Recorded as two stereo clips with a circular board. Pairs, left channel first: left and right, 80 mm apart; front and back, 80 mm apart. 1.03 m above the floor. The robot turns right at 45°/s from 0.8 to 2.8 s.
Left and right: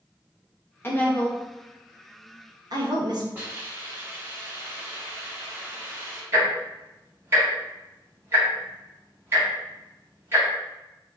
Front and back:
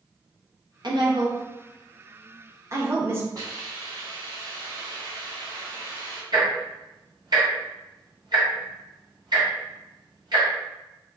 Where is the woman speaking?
150° left, 0.9 m; by 3.2 s 120° right, 0.9 m.